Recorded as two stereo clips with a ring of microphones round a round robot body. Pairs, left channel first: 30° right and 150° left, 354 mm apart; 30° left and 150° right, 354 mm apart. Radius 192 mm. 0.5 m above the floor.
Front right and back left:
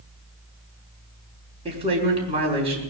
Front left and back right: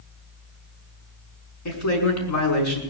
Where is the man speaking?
75° left, 5.5 m.